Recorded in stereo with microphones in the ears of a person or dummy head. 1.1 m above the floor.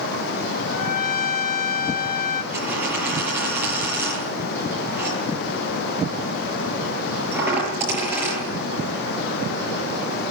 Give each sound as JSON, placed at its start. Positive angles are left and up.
{"t": 0.7, "sound": "a trumpet", "side_deg": 45, "distance_m": 1.2}
{"t": 2.5, "sound": "a dropped coin", "side_deg": -10, "distance_m": 9.0}